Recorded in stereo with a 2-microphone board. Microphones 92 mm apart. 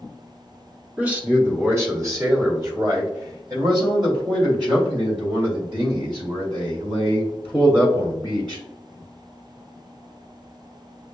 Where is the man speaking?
15° right (ahead or behind), 1.2 m; by 8.6 s 50° right (ahead or behind), 5 m.